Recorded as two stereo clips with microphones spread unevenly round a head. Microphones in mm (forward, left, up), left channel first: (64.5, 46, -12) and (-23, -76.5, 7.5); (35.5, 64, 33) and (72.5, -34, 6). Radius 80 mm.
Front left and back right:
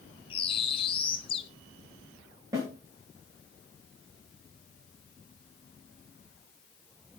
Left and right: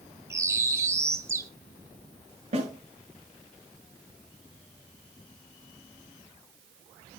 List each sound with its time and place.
0.3 s a bird: straight ahead, 1.7 m
2.5 s a snare drum: 60° right, 7.5 m